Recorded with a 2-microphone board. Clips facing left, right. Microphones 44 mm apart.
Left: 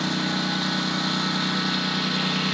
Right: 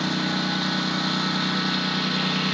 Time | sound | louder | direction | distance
0.0 | a lawn mower | even | centre (ahead or behind) | ?